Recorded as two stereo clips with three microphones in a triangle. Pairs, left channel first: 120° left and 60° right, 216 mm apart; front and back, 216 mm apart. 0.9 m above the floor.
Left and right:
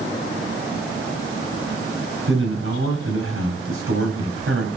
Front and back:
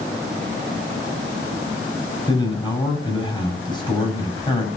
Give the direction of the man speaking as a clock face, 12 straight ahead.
2 o'clock.